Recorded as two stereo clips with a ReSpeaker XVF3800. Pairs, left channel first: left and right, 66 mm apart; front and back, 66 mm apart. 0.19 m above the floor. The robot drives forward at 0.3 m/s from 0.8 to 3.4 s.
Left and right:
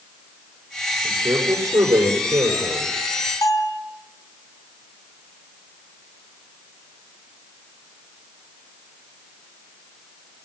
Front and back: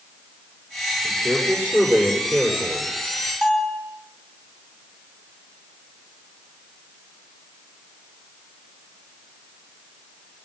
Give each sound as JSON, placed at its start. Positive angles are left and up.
{"t": 1.0, "sound": "a man speaking", "azimuth_deg": -115, "distance_m": 5.5}
{"t": 3.4, "sound": "a bell", "azimuth_deg": 95, "distance_m": 3.5}